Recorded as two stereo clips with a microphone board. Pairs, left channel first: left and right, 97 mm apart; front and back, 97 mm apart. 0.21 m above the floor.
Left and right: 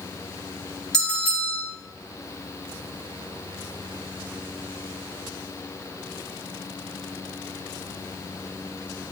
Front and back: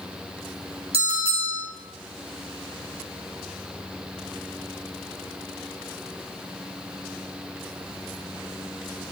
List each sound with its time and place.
0.9 s a bell: 175° left, 4 m